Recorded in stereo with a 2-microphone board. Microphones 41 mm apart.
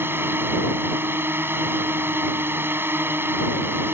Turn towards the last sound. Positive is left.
turn(degrees=-65)  # may be behind; listen again after turning